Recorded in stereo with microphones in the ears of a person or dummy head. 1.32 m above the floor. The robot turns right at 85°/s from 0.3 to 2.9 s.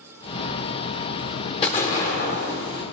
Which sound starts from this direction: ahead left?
An explosion, at 1.6 s.